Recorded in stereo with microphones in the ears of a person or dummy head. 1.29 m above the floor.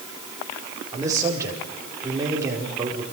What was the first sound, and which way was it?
A man speaking, 15° right (ahead or behind).